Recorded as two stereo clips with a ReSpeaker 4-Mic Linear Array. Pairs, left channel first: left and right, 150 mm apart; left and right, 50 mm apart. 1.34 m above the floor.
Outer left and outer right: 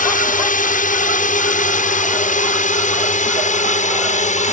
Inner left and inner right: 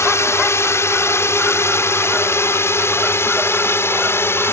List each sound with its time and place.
0.0 s a drone: 70° left (ahead or behind); by 4.5 s 55° left (ahead or behind)